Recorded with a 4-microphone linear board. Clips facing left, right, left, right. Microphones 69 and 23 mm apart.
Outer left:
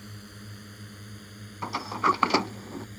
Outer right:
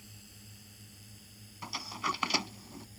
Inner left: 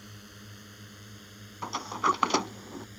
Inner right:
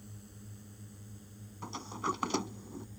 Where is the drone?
60° left (ahead or behind); by 3.0 s 65° left (ahead or behind).